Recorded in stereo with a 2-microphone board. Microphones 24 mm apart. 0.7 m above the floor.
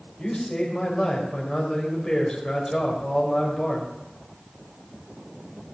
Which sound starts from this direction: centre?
A man speaking, at 0.2 s.